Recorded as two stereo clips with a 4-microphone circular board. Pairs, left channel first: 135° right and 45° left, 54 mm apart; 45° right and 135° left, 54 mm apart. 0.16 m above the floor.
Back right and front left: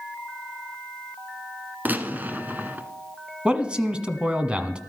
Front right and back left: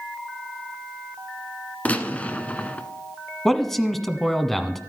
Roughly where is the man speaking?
Ahead left.